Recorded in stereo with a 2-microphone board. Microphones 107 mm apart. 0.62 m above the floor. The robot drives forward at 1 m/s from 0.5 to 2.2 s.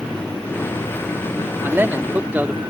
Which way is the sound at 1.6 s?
20° right (ahead or behind).